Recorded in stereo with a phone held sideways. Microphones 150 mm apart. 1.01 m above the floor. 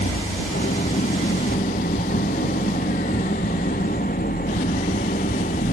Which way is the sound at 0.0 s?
80° left.